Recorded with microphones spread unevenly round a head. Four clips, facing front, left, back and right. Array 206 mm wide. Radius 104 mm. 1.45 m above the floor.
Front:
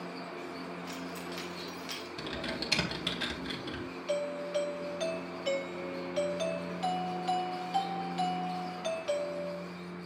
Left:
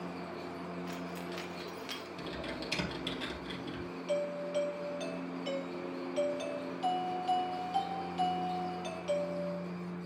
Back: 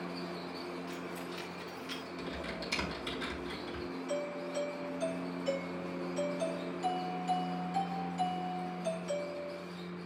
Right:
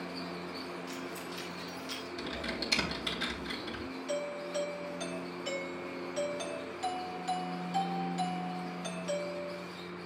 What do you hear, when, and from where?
0.9 s keys jangling: 60° left, 1.8 m; by 2.1 s 45° left, 2.5 m
2.2 s typing on a keyboard: 15° right, 3.5 m
4.1 s a doorbell: 5° right, 1.7 m